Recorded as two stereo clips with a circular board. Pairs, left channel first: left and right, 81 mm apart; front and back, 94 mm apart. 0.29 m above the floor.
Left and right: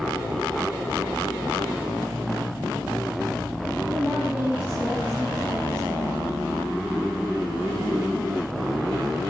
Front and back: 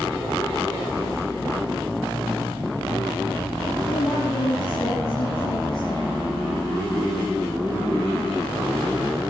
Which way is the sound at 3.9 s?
15° right.